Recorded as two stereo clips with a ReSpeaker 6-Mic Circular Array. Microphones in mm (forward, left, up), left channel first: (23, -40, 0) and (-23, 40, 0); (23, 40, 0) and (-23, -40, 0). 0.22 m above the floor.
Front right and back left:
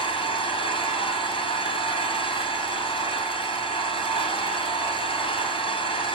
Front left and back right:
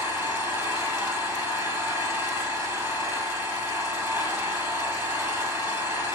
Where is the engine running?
55° right, 2.5 m.